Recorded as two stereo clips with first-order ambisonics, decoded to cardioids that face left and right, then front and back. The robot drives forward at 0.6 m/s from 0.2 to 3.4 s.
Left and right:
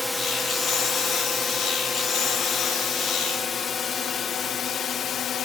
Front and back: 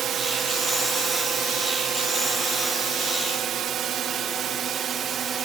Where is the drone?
170° left; by 5.5 s 130° left.